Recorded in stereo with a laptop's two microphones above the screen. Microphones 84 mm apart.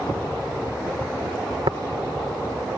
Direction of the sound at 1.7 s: 70° right (ahead or behind).